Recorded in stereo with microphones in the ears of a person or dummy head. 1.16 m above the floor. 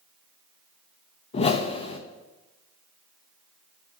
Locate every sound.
1.3 s a whoosh: 40° left (ahead or behind), 0.6 m